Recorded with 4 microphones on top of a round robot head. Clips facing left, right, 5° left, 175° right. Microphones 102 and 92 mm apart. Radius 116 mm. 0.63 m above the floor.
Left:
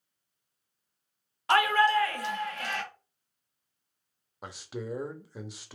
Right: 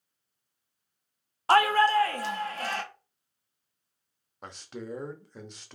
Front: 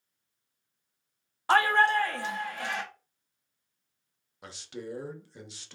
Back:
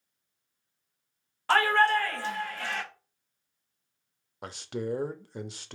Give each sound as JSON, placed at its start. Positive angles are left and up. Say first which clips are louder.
{"t": 1.5, "sound": "a shout", "louder": "right 2 dB, even", "azimuth_deg": -60, "distance_m": 1.2}
{"t": 4.4, "sound": "a man speaking", "louder": "left 2 dB, back 6 dB", "azimuth_deg": 170, "distance_m": 0.8}